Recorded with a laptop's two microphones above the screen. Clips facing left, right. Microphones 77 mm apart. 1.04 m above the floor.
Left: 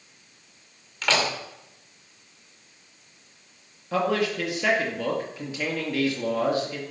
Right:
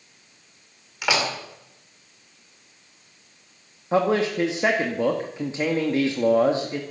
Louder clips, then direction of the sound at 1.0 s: Even; 10° right (ahead or behind).